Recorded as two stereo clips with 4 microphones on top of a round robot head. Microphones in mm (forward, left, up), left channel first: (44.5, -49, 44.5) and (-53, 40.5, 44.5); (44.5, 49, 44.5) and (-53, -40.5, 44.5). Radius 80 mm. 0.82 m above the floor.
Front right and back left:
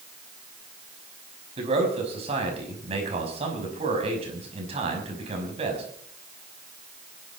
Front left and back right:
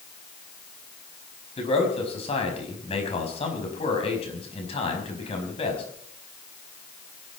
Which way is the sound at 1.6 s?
90° left.